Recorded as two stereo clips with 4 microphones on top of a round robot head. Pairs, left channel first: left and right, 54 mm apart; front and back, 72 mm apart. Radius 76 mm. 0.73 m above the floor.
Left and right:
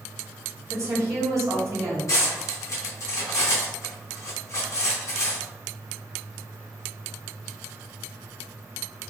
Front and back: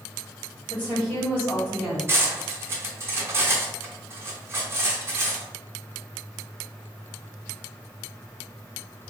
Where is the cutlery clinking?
130° left, 1.1 m.